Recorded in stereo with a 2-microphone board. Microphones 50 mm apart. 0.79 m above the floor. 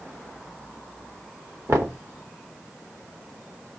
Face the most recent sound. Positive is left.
turn(degrees=-65)  # may be behind; listen again after turning